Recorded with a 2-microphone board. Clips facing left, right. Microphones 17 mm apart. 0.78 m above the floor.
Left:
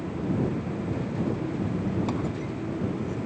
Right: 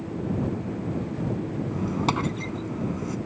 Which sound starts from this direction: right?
A squeak, at 1.7 s.